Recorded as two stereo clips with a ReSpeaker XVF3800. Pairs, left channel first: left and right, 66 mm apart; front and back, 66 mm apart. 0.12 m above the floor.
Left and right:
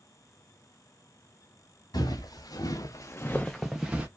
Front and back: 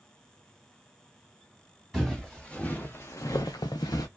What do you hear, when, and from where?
1.9 s footsteps: 85° left, 1.1 m; by 4.1 s 20° right, 0.7 m